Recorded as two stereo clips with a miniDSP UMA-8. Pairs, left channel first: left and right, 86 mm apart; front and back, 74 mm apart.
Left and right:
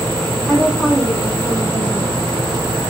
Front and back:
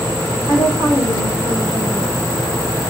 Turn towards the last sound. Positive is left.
turn(degrees=25)